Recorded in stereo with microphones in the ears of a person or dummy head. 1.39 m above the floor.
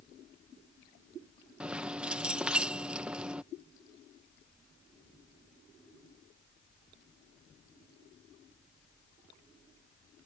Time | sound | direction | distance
1.6 | keys jangling | 5° right (ahead or behind) | ?